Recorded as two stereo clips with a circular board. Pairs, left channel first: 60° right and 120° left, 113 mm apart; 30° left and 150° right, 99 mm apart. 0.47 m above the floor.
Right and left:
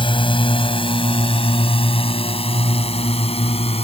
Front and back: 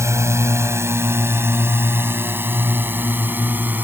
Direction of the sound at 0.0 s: 95° right.